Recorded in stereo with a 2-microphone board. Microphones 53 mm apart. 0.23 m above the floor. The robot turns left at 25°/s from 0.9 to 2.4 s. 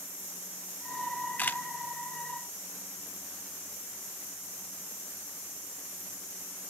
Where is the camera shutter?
35° left (ahead or behind), 0.6 m.